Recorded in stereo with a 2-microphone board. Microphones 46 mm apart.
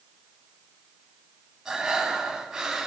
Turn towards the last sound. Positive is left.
turn(degrees=-10)  # may be behind; listen again after turning